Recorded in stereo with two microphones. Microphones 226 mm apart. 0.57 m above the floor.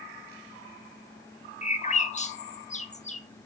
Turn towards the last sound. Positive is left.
turn(degrees=30)  # may be behind; listen again after turning